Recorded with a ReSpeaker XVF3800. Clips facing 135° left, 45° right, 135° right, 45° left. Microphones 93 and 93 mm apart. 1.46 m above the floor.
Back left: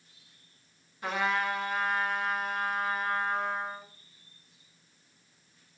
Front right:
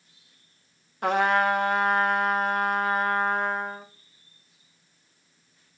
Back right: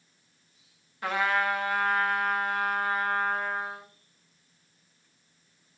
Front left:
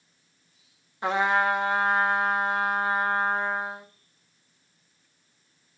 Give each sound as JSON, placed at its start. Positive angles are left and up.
{"t": 1.0, "sound": "a trumpet", "azimuth_deg": -20, "distance_m": 1.5}